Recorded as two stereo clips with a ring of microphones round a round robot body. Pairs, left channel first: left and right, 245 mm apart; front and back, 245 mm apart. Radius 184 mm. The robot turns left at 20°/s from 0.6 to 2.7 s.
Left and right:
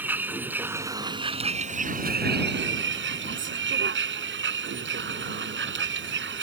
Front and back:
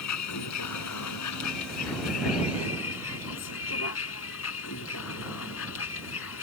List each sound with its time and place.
0.0 s a vehicle: 5° right; by 6.4 s 50° right